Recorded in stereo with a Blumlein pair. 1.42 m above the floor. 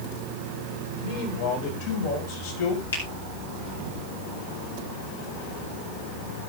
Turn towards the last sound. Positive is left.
turn(degrees=70)